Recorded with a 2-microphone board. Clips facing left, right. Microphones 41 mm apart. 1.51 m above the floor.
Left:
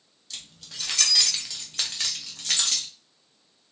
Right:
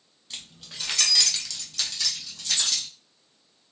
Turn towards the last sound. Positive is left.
turn(degrees=60)  # may be behind; listen again after turning